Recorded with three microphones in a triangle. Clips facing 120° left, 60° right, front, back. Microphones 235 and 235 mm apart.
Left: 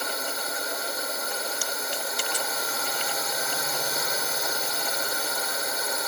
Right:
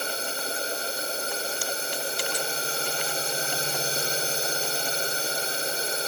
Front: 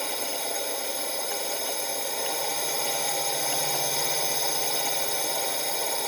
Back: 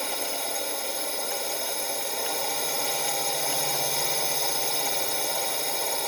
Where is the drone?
90° right.